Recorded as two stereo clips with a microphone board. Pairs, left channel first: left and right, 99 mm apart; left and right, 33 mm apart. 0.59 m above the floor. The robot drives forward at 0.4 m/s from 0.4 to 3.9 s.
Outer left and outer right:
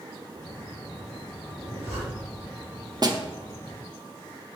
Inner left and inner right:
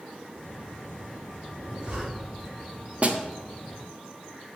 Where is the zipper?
30° right (ahead or behind), 3.5 m; by 2.5 s 35° right (ahead or behind), 3 m.